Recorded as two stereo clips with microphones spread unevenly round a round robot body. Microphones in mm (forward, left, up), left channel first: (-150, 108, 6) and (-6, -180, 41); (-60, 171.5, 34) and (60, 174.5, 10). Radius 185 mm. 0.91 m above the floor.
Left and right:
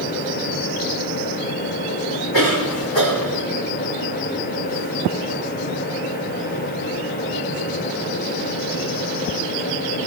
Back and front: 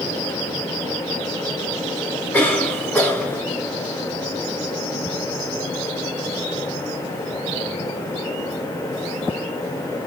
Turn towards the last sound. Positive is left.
turn(degrees=105)